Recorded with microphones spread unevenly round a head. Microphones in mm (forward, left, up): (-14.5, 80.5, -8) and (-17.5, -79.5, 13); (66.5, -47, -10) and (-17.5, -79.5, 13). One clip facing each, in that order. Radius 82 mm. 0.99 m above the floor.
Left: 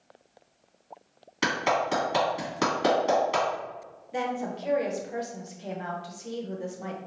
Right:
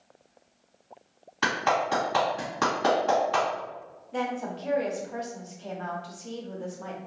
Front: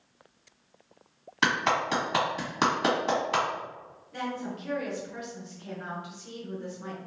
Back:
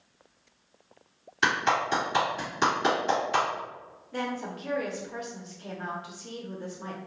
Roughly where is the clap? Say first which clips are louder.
Even, back 1 dB; ahead.